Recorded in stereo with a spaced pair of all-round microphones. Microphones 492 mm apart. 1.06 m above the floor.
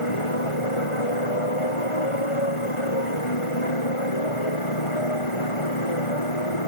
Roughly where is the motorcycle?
Left.